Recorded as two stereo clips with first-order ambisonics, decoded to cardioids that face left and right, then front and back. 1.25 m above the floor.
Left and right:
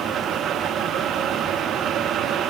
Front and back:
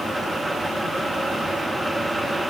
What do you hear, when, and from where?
Only background noise.